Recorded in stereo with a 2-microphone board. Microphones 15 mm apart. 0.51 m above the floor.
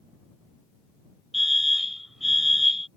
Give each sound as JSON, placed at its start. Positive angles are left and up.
{"t": 1.3, "sound": "a fire alarm", "side_deg": -5}